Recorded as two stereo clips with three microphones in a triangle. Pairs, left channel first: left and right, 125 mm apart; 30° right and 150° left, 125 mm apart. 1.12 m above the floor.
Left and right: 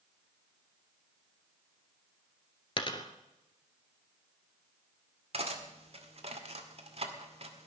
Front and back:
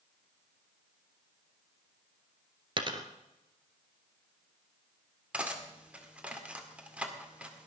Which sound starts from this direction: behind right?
Cutlery clinking, at 5.3 s.